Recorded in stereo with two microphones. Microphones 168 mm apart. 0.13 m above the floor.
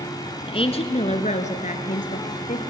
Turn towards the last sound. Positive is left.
turn(degrees=55)  # may be behind; listen again after turning